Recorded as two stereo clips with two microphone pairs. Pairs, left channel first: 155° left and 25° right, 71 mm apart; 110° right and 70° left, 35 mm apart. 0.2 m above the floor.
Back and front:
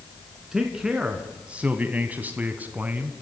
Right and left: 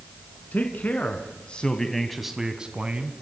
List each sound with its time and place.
0.5 s a man speaking: 105° right, 2 m; by 3.1 s 35° left, 1.8 m